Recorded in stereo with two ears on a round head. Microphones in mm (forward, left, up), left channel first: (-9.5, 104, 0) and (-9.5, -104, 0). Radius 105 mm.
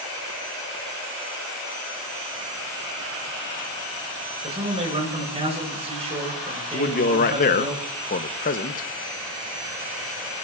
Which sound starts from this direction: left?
A man speaking, at 6.7 s.